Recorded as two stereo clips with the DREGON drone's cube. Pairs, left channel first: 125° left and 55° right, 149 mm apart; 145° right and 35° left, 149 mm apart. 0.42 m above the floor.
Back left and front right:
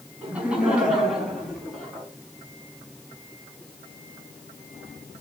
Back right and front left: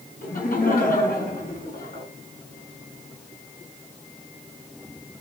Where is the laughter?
135° right, 5 m; by 2.1 s 150° right, 5.5 m.